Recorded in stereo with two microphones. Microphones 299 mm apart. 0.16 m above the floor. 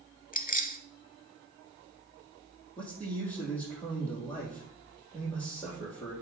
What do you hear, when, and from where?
0.3 s keys jangling: 30° left (ahead or behind), 0.7 m
2.8 s a man speaking: 5° left (ahead or behind), 5 m